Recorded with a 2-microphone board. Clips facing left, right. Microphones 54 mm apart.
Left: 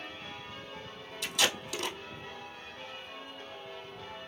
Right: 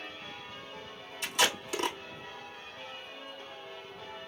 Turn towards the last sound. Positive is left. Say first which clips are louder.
# right 2 dB
turn(degrees=-40)  # may be behind; listen again after turning